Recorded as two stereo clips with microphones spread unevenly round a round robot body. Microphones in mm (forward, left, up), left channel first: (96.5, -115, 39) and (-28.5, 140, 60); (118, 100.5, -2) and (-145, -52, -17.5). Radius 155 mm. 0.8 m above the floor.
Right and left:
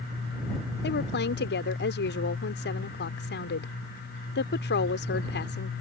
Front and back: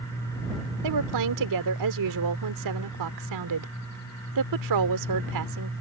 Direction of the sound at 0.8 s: 120° right.